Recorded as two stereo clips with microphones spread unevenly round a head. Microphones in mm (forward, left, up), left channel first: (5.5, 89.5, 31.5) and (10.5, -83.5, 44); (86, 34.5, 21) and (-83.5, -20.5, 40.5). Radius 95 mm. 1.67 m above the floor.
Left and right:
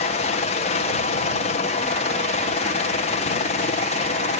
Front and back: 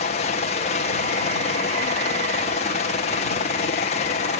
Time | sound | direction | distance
0.0 | a helicopter | 55° left | ?